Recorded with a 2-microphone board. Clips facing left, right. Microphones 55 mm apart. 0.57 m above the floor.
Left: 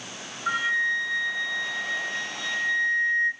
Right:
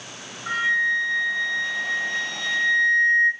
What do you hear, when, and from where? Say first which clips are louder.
0.5 s a flute: right 3 dB; 5° left (ahead or behind), 2 m